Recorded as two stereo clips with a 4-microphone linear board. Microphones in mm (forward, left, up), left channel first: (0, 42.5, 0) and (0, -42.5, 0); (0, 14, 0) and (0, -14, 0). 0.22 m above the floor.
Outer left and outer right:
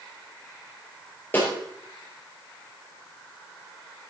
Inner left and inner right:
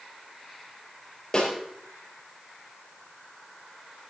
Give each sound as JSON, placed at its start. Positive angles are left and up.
{"t": 1.3, "sound": "a snare drum", "side_deg": 20, "distance_m": 4.5}